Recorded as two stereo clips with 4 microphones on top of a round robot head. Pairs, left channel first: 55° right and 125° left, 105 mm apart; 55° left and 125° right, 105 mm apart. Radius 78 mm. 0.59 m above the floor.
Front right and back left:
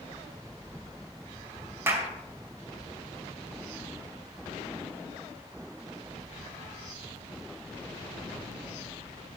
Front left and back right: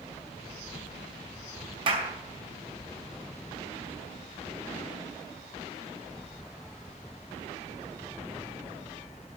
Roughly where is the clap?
Behind.